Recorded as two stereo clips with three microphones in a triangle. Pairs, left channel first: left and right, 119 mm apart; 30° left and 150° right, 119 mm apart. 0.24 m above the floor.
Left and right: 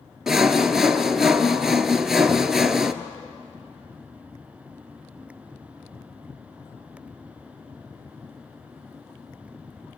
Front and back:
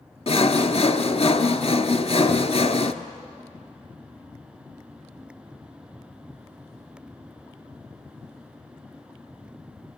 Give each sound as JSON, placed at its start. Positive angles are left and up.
{"t": 0.3, "sound": "sawing", "azimuth_deg": -5, "distance_m": 0.9}